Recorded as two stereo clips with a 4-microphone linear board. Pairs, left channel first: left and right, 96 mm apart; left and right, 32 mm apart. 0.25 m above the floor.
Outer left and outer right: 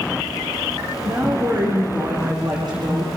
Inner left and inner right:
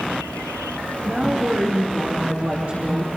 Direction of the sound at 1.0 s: 45° right (ahead or behind).